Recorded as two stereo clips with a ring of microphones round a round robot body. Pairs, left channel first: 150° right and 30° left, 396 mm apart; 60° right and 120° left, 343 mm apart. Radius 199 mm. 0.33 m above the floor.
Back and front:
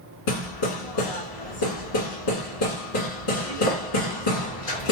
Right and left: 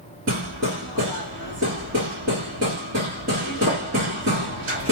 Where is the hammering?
Straight behind, 1.6 m.